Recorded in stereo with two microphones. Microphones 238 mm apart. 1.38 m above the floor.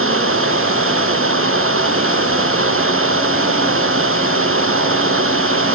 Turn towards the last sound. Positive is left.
turn(degrees=-60)  # may be behind; listen again after turning